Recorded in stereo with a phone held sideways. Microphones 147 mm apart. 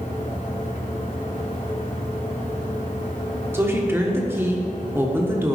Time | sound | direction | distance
0.0 | a fan | 65° left (ahead or behind) | 3 m
3.5 | a woman speaking | 15° right (ahead or behind) | 1.3 m